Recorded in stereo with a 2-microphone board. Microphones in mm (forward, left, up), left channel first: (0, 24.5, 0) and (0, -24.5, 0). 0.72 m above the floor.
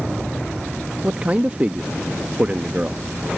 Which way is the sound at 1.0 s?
30° right (ahead or behind).